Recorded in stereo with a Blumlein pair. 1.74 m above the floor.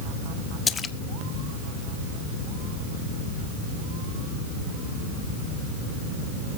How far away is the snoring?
I don't hear snoring.